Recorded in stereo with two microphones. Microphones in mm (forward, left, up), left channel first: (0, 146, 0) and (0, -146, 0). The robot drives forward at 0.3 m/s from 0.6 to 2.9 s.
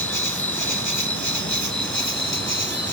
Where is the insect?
85° left, 1.3 m; by 2.9 s 55° left (ahead or behind), 1.5 m.